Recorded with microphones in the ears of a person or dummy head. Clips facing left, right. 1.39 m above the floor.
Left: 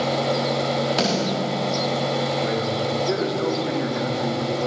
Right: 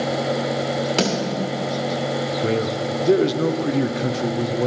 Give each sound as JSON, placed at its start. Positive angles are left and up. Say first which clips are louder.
{"t": 1.0, "sound": "a snare drum", "louder": "right 3 dB", "side_deg": -35, "distance_m": 2.0}
{"t": 2.4, "sound": "a man speaking", "louder": "right 2 dB", "side_deg": -45, "distance_m": 0.5}